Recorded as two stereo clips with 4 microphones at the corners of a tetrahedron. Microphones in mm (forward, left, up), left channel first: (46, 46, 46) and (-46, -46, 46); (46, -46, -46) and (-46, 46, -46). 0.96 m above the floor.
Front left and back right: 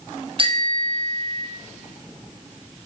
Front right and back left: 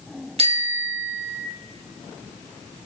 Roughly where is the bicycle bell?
Behind.